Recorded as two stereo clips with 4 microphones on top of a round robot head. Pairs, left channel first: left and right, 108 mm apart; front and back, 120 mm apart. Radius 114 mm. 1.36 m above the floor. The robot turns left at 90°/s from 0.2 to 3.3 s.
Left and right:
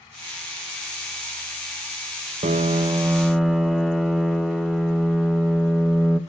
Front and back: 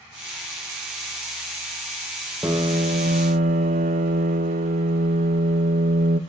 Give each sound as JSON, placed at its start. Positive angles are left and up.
{"t": 2.4, "sound": "a piano", "azimuth_deg": -105, "distance_m": 1.0}